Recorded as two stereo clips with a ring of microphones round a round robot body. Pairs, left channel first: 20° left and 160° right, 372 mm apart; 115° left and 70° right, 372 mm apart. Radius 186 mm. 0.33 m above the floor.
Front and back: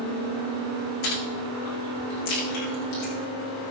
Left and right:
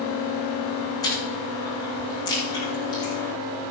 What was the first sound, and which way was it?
Chewing, 30° left.